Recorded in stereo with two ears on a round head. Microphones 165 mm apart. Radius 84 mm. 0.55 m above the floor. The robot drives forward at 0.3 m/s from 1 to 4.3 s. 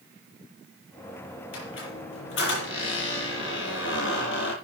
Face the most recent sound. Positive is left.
turn(degrees=70)  # may be behind; listen again after turning